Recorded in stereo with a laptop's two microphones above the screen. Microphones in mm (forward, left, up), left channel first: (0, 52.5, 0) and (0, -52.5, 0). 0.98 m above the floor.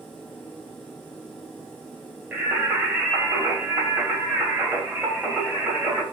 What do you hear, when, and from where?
0.0 s a machine running: 5° left (ahead or behind), 5 m
2.3 s singing: 10° right (ahead or behind), 2.5 m